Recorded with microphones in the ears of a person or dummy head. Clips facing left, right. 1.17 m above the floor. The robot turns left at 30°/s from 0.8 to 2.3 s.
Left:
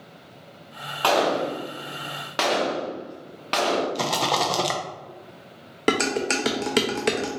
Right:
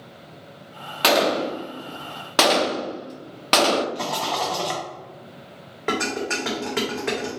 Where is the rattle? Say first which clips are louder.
Left 2 dB; 45° left (ahead or behind), 0.6 m.